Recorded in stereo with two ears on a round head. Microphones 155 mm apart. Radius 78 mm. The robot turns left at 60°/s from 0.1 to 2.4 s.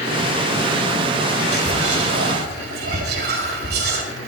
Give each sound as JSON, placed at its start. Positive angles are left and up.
{"t": 1.5, "sound": "whispering", "azimuth_deg": -60, "distance_m": 4.5}